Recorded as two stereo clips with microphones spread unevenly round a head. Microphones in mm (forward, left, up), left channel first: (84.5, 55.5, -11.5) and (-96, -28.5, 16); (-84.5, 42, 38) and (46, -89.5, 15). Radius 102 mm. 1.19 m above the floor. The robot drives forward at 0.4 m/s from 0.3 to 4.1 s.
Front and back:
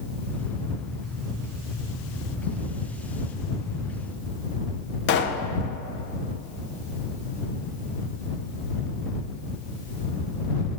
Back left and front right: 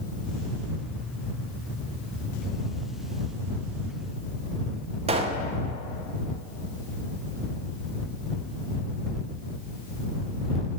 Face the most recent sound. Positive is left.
turn(degrees=5)